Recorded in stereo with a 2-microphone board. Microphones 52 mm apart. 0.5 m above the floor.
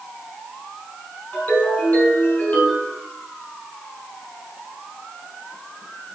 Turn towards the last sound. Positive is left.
turn(degrees=25)  # may be behind; listen again after turning